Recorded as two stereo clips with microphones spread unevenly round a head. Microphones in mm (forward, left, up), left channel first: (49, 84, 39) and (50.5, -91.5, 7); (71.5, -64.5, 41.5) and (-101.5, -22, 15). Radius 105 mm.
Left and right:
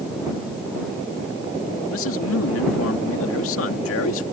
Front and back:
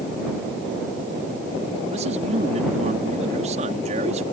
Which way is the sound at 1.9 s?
105° left.